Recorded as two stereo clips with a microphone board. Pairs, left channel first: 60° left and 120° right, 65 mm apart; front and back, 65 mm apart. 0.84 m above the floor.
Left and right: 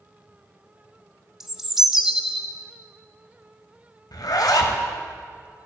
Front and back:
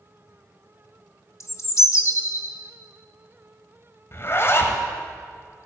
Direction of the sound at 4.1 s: 50° left.